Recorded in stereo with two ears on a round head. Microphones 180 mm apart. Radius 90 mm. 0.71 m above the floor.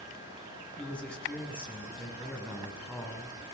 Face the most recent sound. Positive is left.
turn(degrees=5)  # may be behind; listen again after turning